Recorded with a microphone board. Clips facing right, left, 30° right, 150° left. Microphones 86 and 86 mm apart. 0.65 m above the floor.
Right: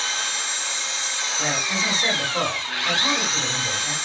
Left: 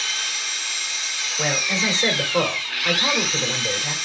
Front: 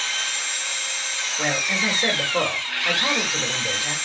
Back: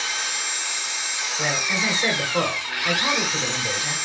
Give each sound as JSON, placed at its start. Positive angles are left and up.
{"t": 0.0, "sound": "an engine running", "azimuth_deg": -140, "distance_m": 0.8}
{"t": 1.4, "sound": "a man speaking", "azimuth_deg": 45, "distance_m": 2.0}